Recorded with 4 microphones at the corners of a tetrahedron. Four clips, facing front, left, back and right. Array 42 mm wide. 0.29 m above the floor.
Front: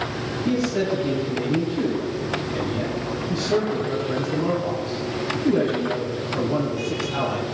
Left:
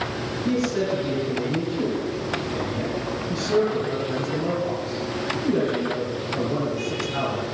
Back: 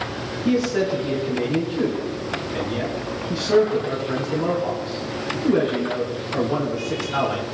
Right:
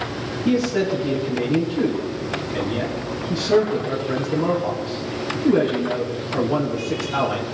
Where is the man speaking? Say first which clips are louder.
Right 4 dB, back 2 dB; 145° right, 4.5 m.